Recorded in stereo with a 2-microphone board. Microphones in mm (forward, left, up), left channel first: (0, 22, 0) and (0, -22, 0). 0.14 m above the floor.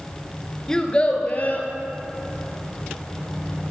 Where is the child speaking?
15° left (ahead or behind), 1.2 m; by 1.7 s 45° left (ahead or behind), 2.5 m.